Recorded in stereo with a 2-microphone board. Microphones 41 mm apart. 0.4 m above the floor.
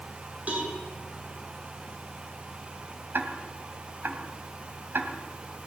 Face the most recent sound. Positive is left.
turn(degrees=-60)  # may be behind; listen again after turning